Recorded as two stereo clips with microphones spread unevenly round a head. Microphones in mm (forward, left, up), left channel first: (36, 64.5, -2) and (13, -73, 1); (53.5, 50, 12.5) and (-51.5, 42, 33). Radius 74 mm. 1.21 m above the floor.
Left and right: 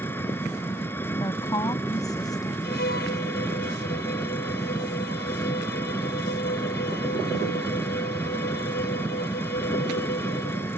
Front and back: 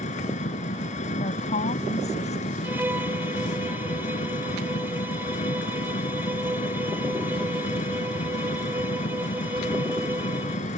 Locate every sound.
0.0 s an engine running: 5° left
1.2 s a woman speaking: 15° left
2.6 s a violin: 115° left